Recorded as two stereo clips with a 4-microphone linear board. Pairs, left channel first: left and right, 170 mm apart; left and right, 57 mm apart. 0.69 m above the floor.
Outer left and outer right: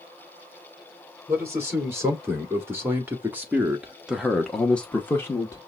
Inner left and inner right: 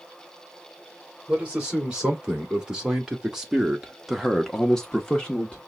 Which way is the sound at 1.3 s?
15° right (ahead or behind).